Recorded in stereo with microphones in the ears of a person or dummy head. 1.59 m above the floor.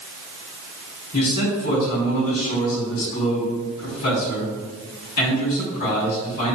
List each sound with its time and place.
1.1 s a man speaking: 55° left (ahead or behind), 4.5 m